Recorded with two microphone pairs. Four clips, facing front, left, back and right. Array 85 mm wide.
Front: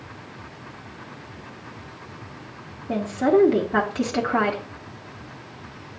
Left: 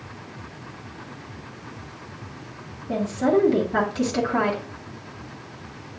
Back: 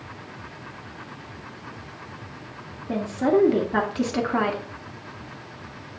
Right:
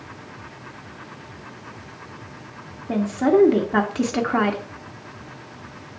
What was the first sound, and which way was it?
A woman speaking, 75° right.